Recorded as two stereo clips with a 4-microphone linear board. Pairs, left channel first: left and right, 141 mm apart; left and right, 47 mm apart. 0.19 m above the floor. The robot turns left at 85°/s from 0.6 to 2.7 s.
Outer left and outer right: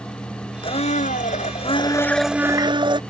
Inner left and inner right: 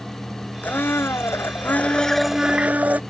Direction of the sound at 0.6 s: 135° left.